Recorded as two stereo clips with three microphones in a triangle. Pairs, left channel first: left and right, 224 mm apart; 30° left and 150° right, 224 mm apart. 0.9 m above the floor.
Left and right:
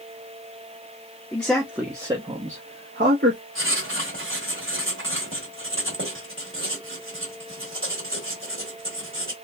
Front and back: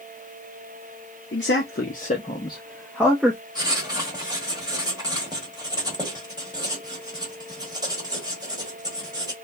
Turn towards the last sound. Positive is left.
turn(degrees=-80)